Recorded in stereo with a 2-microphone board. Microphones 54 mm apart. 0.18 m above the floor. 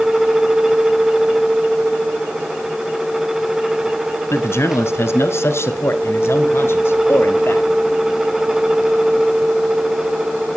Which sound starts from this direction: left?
A man speaking, at 4.3 s.